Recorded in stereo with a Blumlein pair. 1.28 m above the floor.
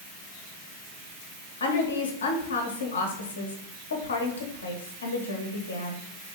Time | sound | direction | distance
1.6 | a woman speaking | 65° left | 1.0 m